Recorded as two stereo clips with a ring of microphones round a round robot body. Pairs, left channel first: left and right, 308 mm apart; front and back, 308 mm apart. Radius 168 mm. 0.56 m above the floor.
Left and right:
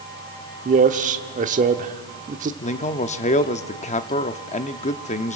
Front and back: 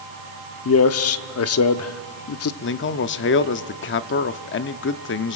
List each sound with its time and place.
0.7 s a man speaking: 30° right, 1.1 m
2.6 s a man speaking: 30° left, 0.7 m